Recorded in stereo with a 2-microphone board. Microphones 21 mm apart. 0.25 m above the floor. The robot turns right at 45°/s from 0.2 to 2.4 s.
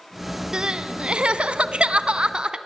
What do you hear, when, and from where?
0.5 s crying: 140° right, 0.8 m; by 2.6 s 55° right, 0.8 m